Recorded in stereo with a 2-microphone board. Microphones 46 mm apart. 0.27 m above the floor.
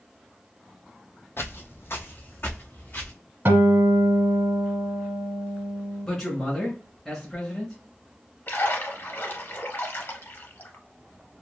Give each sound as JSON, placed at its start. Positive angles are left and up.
{"t": 1.4, "sound": "footsteps", "side_deg": 60, "distance_m": 0.5}
{"t": 3.5, "sound": "a guitar", "side_deg": -55, "distance_m": 0.9}
{"t": 6.0, "sound": "a man speaking", "side_deg": 5, "distance_m": 1.5}
{"t": 8.5, "sound": "a splash", "side_deg": 50, "distance_m": 0.8}